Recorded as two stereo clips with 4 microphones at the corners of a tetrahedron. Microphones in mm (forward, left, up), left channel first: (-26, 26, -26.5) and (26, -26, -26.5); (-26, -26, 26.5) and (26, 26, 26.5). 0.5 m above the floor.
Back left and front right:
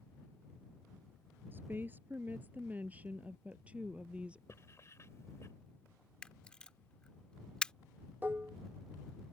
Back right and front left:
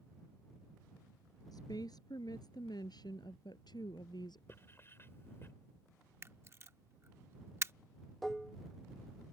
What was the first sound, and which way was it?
A woman speaking, 110° right.